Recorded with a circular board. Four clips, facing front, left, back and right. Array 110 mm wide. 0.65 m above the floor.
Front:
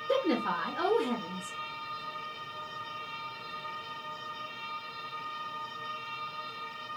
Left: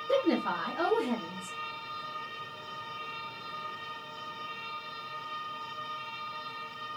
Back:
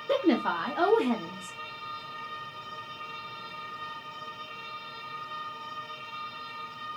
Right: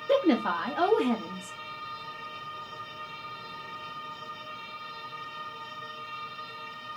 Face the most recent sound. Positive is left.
turn(degrees=-135)